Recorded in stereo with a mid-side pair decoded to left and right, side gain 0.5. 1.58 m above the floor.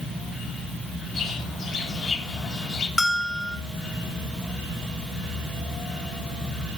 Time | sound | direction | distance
1.1 | a bird | 50° left | 8 m
3.0 | a bell | 25° left | 3.5 m